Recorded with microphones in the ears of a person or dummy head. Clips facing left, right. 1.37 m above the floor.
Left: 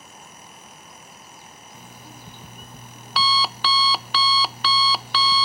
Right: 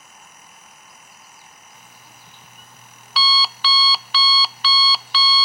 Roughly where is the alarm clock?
Left.